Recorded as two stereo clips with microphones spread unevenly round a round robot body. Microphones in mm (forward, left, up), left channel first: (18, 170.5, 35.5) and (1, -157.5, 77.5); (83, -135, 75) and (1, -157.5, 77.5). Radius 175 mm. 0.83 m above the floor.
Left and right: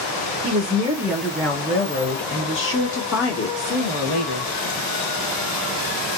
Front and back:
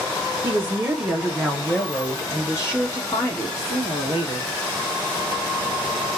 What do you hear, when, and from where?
0.4 s a woman speaking: 140° right, 0.9 m; by 4.5 s 60° left, 1.9 m